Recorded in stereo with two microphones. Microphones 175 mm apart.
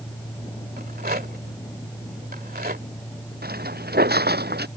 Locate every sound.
0.8 s a rattle: 60° right (ahead or behind)
3.4 s footsteps: 60° right (ahead or behind)